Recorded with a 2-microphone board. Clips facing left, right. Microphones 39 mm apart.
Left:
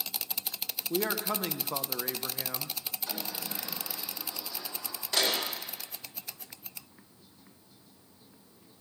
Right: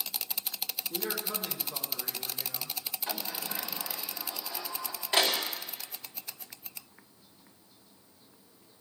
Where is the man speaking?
60° left (ahead or behind), 1.4 m; by 2.8 s 65° left (ahead or behind), 1.2 m.